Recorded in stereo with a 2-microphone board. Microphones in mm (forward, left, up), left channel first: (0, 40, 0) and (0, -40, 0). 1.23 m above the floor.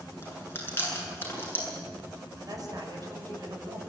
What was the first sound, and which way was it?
Chewing, 30° left (ahead or behind).